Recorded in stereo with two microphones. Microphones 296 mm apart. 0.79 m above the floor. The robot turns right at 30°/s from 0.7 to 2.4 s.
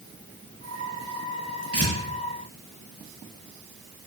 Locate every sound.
1.7 s tearing paper: 55° right (ahead or behind), 6 m; by 1.9 s 60° right (ahead or behind), 6 m